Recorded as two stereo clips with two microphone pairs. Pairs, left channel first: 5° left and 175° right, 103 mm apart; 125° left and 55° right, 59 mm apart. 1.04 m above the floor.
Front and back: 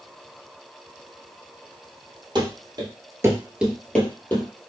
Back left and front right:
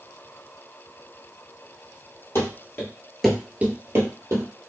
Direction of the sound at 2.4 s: 155° left.